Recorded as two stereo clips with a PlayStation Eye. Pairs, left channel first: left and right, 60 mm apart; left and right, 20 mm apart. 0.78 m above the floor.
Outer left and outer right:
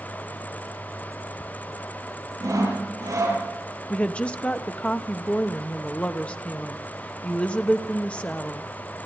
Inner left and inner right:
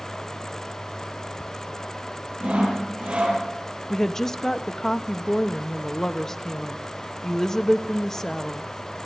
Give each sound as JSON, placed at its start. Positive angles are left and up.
{"t": 2.4, "sound": "sawing", "side_deg": -65, "distance_m": 10.0}
{"t": 3.9, "sound": "a woman speaking", "side_deg": 20, "distance_m": 0.9}